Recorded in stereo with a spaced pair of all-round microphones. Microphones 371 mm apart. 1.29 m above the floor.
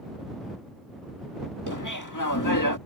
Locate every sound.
1.7 s laughter: 55° left (ahead or behind)